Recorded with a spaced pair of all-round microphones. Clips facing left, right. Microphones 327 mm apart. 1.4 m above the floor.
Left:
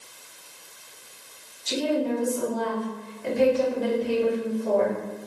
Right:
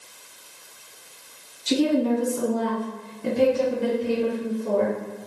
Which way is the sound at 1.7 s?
70° right (ahead or behind).